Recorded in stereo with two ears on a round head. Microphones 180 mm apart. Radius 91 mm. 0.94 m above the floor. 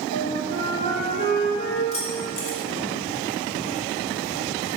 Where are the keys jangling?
30° left (ahead or behind), 2.5 m.